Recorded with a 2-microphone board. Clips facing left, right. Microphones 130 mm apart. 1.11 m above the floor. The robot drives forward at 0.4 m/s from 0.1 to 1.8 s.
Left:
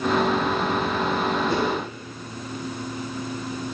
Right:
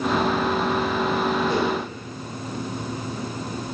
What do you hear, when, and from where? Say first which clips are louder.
1.5 s a whoosh: right 1 dB; 70° left (ahead or behind), 2.5 m